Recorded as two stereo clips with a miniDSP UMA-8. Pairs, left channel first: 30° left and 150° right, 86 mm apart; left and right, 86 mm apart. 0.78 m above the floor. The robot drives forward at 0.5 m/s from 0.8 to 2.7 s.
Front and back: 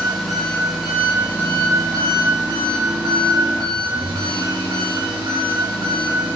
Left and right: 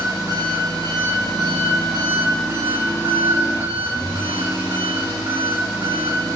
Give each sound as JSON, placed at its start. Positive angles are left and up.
{"t": 0.0, "sound": "an engine running", "azimuth_deg": -60, "distance_m": 0.7}